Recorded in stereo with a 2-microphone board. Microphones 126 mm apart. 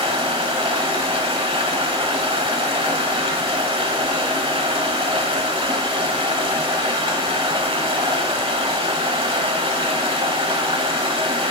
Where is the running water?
45° right (ahead or behind), 1.1 m.